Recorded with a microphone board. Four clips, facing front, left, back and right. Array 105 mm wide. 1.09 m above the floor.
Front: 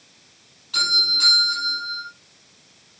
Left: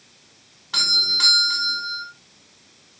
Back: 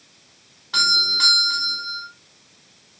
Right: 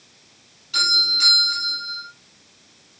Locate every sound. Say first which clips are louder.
0.7 s a doorbell: right 2 dB, back 4 dB; 135° left, 5 m